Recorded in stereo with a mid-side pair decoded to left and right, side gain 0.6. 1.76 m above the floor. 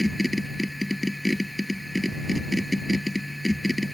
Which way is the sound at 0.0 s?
5° left.